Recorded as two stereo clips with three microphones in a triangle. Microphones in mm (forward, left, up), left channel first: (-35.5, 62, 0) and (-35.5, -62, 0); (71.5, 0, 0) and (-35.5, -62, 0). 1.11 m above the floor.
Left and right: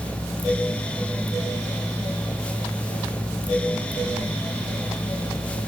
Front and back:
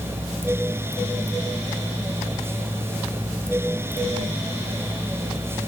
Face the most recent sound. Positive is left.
No sound to turn to.